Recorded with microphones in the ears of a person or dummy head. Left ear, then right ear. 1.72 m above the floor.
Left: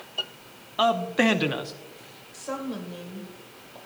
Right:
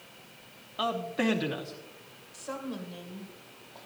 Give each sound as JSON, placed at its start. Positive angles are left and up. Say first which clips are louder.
{"t": 0.8, "sound": "a man speaking", "louder": "left 8 dB", "side_deg": 20, "distance_m": 0.8}
{"t": 2.3, "sound": "a woman speaking", "louder": "left 5 dB", "side_deg": 0, "distance_m": 1.7}